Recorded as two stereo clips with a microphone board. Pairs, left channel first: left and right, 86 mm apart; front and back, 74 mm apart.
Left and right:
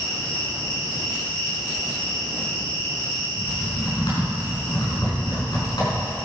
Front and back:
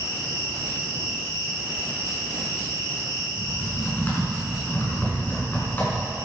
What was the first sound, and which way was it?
An insect, 20° left.